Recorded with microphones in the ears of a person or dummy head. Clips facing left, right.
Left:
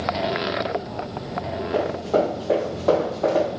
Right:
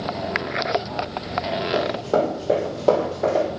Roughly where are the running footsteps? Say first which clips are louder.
Left 1 dB; right.